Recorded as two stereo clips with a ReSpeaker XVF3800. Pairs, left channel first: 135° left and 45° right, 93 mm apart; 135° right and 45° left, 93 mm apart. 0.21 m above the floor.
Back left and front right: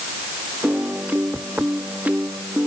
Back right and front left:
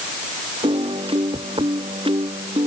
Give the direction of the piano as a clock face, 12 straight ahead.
11 o'clock.